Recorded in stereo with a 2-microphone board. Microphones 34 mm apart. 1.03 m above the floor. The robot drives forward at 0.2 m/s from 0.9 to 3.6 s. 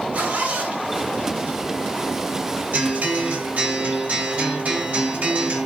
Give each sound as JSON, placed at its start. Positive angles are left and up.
{"t": 0.1, "sound": "a zipper", "side_deg": -60, "distance_m": 2.0}
{"t": 2.7, "sound": "a guitar", "side_deg": -65, "distance_m": 2.0}